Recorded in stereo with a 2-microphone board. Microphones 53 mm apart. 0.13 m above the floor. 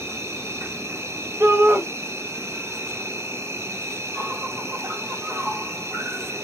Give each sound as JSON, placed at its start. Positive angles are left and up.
{"t": 0.0, "sound": "an insect", "side_deg": -70, "distance_m": 1.0}
{"t": 1.4, "sound": "a shout", "side_deg": -55, "distance_m": 3.5}